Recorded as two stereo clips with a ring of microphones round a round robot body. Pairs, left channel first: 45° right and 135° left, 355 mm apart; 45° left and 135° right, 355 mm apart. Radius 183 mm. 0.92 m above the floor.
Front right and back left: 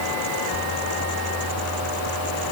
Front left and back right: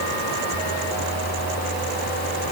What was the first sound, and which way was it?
Only background noise.